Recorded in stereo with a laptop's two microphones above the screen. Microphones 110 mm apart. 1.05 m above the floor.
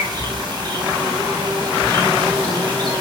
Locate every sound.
0.0 s an insect: 40° right (ahead or behind), 1.6 m